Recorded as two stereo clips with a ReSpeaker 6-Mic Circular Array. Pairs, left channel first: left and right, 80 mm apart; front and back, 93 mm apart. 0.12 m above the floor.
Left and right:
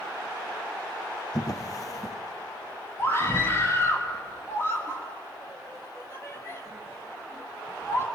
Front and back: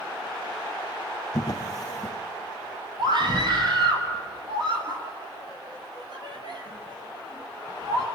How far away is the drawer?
About 3 m.